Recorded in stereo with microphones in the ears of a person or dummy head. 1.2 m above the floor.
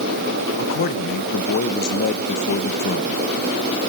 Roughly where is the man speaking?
Left.